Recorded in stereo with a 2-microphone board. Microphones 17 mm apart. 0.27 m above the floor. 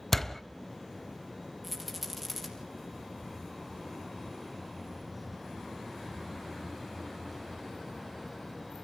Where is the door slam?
15° left (ahead or behind), 0.9 m.